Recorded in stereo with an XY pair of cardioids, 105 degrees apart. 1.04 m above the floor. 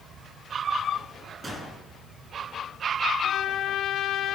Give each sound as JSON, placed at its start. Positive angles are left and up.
{"t": 0.0, "sound": "a fan", "azimuth_deg": -50, "distance_m": 7.0}
{"t": 1.4, "sound": "a gunshot", "azimuth_deg": -35, "distance_m": 9.5}
{"t": 3.2, "sound": "a trumpet", "azimuth_deg": 65, "distance_m": 4.5}